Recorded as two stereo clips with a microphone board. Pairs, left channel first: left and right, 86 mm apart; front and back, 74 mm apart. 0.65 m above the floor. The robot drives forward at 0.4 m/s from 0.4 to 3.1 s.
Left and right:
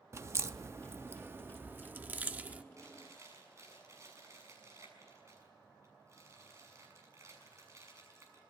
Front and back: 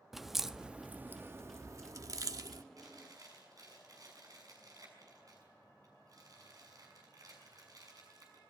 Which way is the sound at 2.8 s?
145° right.